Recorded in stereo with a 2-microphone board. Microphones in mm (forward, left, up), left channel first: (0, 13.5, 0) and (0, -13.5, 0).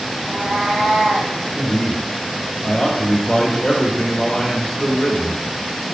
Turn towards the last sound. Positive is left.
turn(degrees=30)  # may be behind; listen again after turning